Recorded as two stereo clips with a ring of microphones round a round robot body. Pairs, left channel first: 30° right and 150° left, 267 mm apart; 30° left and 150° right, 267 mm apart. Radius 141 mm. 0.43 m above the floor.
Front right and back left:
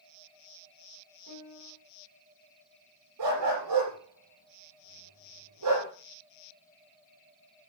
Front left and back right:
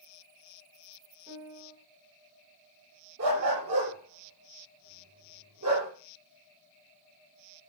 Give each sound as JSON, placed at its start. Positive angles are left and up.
{"t": 1.3, "sound": "a piano", "azimuth_deg": 140, "distance_m": 2.5}
{"t": 3.2, "sound": "a dog barking", "azimuth_deg": 175, "distance_m": 7.0}